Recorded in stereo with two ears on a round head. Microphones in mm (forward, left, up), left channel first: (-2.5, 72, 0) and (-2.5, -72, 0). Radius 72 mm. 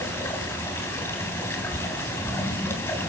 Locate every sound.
0.0 s running water: 15° left (ahead or behind), 3 m